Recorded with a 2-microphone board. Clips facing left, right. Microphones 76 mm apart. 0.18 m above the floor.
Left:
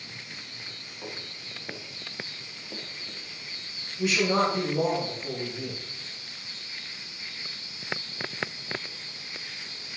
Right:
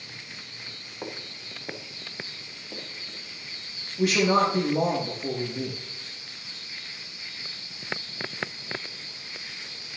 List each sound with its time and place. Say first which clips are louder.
1.0 s footsteps: right 3 dB; 40° right (ahead or behind), 2.5 m; by 3.2 s 5° left (ahead or behind), 2.5 m
4.0 s a man speaking: right 3 dB; 75° right (ahead or behind), 4.5 m